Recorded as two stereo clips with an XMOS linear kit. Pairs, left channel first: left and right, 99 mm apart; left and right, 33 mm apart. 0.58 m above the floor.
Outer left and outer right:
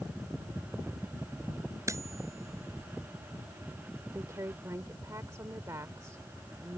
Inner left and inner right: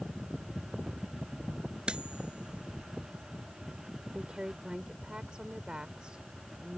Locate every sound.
1.9 s cutlery clinking: 30° right (ahead or behind)
4.1 s a woman speaking: 35° right (ahead or behind)